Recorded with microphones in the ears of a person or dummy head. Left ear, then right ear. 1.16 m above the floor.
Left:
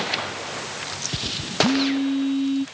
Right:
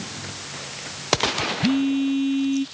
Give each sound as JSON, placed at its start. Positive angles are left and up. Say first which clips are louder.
{"t": 1.6, "sound": "a phone buzzing", "louder": "left 4 dB", "side_deg": -35}